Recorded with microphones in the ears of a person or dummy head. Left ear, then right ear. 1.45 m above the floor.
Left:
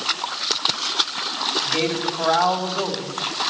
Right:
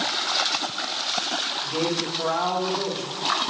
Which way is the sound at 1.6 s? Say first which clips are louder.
Left 3 dB; 25° left (ahead or behind).